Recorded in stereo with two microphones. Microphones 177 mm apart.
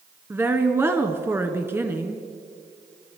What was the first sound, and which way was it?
A woman speaking, 15° right (ahead or behind).